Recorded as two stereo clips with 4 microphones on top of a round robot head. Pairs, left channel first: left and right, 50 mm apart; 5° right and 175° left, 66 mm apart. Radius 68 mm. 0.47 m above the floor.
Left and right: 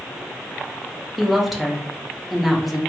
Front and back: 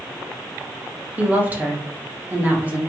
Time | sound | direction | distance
1.2 | a woman speaking | 175° right | 0.8 m